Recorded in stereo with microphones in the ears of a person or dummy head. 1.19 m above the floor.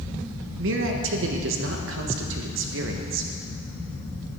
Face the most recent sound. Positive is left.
turn(degrees=-70)  # may be behind; listen again after turning